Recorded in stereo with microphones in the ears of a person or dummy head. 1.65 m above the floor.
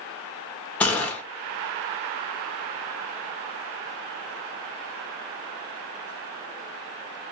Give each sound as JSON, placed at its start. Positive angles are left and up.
{"t": 0.8, "sound": "a gunshot", "side_deg": 10, "distance_m": 0.8}